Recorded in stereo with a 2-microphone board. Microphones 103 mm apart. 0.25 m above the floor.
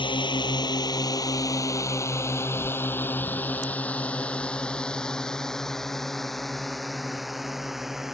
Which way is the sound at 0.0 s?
55° left (ahead or behind).